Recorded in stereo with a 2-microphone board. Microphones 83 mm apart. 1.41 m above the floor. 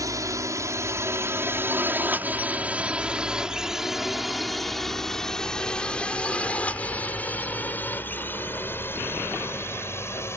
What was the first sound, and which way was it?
A drone, 45° right (ahead or behind).